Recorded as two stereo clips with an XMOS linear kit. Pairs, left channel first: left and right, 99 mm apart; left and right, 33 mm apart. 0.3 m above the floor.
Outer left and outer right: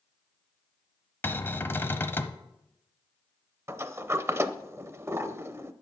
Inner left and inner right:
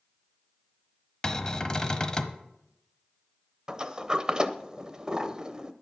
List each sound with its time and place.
1.2 s a cupboard door: 25° left (ahead or behind), 0.8 m
3.7 s a sliding door: 25° right (ahead or behind), 0.6 m